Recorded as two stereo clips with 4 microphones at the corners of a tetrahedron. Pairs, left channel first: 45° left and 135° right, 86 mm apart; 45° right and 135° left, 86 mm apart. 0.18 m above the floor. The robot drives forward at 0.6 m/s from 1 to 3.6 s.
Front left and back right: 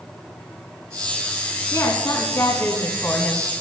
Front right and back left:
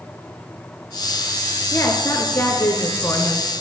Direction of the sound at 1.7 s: Straight ahead.